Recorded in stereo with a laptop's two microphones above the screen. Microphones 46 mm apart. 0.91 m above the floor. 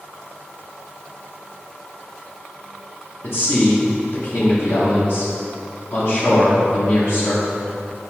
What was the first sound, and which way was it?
A man speaking, 65° left (ahead or behind).